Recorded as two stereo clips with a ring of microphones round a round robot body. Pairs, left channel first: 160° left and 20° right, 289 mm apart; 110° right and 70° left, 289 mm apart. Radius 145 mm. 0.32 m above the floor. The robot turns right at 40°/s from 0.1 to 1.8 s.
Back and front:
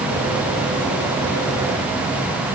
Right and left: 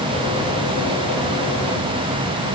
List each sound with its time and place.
Only background noise.